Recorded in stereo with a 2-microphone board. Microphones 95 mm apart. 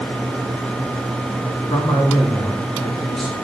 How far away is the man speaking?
About 2.5 m.